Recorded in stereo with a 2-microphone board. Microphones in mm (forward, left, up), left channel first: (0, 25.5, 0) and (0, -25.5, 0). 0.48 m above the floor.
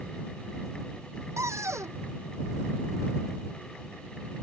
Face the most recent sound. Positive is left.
turn(degrees=-90)